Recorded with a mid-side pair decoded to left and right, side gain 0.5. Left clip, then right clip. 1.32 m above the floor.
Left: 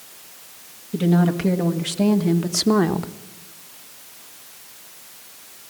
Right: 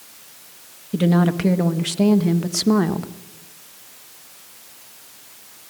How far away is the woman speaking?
About 1.7 m.